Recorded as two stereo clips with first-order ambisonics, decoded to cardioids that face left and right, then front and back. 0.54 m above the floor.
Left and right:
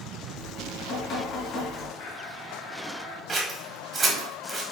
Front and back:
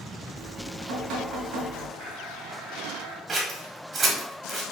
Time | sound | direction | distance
0.4 | dripping | 145° left | 1.7 m
2.0 | a blender | 110° left | 1.8 m
3.3 | scissors | 140° right | 1.0 m